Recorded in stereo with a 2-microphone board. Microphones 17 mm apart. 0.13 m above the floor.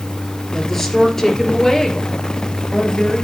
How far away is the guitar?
I don't hear a guitar.